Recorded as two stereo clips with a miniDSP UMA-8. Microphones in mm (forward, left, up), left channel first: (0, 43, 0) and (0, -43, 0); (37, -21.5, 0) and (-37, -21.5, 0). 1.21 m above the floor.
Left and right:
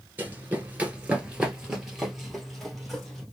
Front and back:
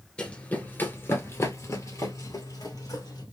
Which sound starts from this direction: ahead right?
Running footsteps, at 0.2 s.